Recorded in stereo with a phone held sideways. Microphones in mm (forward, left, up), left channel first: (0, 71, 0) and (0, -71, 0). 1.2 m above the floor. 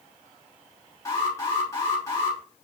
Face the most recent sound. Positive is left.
turn(degrees=25)  # may be behind; listen again after turning